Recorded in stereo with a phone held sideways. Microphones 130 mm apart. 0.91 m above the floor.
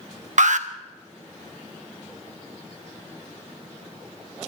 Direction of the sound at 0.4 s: 70° right (ahead or behind).